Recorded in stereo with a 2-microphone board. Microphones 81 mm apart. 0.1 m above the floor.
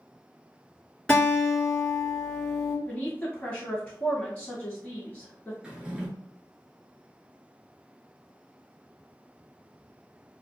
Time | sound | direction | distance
1.1 | a guitar | 10° left (ahead or behind) | 1.7 m
2.9 | a woman speaking | 20° left (ahead or behind) | 1.2 m
5.6 | a drawer | 15° right (ahead or behind) | 0.9 m